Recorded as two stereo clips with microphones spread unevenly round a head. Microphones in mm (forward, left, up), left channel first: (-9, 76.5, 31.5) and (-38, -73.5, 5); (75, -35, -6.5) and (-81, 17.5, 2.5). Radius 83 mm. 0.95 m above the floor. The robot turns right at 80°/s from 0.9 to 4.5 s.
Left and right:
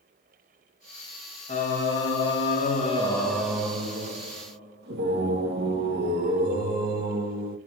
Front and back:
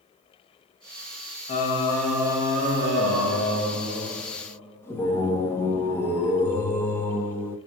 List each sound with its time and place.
1.5 s singing: 25° left, 0.9 m; by 7.6 s 95° right, 0.9 m